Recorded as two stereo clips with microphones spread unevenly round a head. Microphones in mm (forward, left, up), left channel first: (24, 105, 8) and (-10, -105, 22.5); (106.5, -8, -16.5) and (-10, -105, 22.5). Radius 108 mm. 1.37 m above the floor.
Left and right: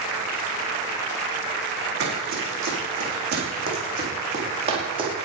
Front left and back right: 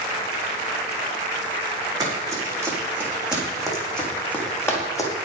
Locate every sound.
2.0 s running footsteps: 80° right, 5 m; by 5.1 s 35° right, 4.5 m